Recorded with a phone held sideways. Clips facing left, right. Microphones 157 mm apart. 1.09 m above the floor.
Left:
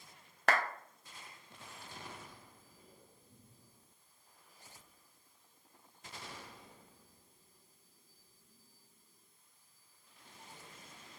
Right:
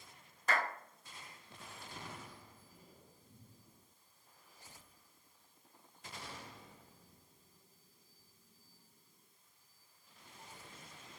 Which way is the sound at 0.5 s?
75° left (ahead or behind).